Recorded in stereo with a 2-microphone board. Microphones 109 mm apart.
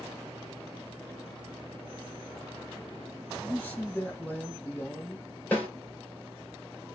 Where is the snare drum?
15° left (ahead or behind), 2 m.